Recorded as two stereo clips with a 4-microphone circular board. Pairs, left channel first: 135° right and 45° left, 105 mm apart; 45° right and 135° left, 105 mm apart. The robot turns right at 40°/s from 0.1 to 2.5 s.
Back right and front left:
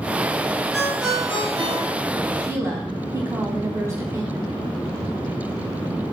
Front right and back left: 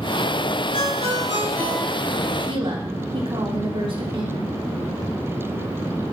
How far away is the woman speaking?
About 3 m.